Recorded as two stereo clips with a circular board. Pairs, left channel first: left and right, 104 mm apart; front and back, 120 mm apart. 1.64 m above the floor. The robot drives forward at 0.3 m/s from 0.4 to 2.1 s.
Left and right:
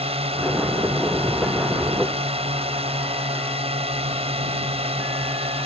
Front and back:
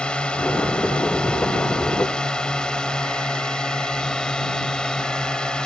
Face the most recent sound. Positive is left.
turn(degrees=-85)